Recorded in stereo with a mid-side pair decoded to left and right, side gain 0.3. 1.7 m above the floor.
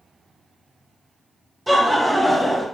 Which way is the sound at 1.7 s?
10° right.